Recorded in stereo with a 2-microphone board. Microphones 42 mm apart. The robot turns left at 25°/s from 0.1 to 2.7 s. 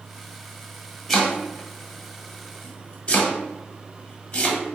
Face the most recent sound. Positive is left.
turn(degrees=30)  # may be behind; listen again after turning